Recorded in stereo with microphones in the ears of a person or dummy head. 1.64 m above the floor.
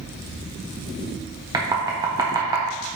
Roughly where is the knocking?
Centre.